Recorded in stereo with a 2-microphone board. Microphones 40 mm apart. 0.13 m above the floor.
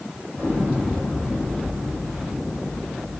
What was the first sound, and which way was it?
An explosion, 40° left (ahead or behind).